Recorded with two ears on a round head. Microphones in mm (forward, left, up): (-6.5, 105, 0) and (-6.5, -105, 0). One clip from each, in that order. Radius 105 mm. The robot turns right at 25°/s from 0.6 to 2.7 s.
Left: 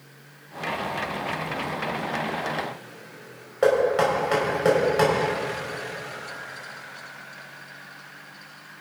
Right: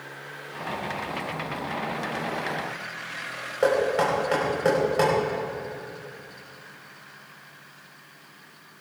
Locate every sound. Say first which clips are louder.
3.6 s knocking: left 2 dB; 5° left (ahead or behind), 4 m